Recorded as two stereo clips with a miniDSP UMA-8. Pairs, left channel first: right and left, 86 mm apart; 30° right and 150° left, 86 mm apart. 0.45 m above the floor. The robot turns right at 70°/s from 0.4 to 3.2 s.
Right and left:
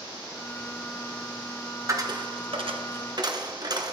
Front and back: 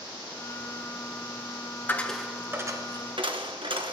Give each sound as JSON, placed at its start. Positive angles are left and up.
{"t": 1.9, "sound": "a dropped coin", "azimuth_deg": 40, "distance_m": 1.5}